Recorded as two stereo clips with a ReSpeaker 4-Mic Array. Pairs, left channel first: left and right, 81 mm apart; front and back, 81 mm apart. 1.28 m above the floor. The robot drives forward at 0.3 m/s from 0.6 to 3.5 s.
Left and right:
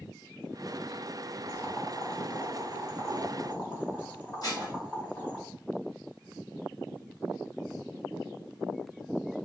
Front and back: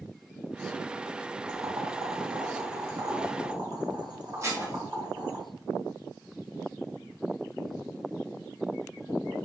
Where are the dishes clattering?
125° left, 1.1 m.